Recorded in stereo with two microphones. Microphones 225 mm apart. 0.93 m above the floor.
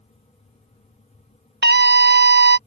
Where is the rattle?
I don't hear a rattle.